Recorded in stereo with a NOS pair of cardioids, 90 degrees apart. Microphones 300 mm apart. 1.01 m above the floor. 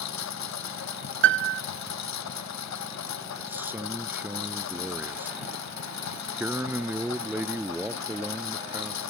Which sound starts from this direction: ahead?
A man speaking, at 3.4 s.